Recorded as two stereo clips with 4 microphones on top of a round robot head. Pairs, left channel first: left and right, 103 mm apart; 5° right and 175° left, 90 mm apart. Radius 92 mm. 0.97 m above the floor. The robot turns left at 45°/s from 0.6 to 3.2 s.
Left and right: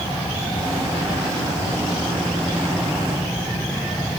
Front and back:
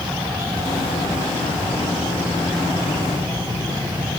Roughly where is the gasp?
No gasp in this recording.